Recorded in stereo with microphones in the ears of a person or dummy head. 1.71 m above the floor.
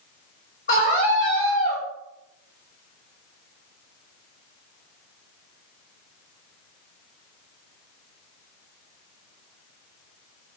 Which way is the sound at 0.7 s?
45° left (ahead or behind).